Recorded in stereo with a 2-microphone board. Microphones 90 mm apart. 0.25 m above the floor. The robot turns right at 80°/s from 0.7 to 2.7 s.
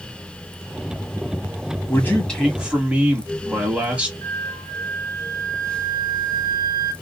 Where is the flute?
25° left (ahead or behind), 1.5 m.